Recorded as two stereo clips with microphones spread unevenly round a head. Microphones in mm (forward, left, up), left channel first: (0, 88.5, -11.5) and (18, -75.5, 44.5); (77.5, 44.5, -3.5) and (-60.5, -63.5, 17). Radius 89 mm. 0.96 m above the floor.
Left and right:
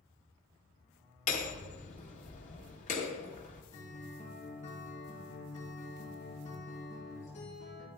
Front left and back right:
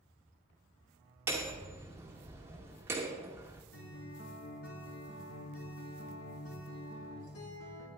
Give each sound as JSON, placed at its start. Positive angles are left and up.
{"t": 1.3, "sound": "hammering", "azimuth_deg": 140, "distance_m": 1.8}
{"t": 3.7, "sound": "a guitar", "azimuth_deg": 45, "distance_m": 4.0}